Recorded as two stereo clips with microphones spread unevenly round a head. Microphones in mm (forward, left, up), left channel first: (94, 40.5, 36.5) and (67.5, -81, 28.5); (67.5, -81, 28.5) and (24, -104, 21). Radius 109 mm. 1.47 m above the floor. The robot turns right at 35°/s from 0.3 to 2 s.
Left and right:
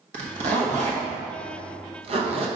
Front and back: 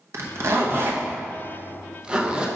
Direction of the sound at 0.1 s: 135° right.